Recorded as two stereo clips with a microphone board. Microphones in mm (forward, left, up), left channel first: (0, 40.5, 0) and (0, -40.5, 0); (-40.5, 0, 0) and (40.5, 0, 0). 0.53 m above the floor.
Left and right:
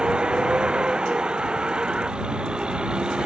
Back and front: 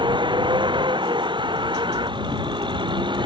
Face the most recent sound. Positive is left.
turn(degrees=-10)